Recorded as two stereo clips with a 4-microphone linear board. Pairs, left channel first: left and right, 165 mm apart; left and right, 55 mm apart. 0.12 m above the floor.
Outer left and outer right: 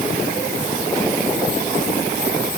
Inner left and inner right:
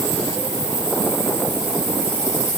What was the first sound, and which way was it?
Only background noise.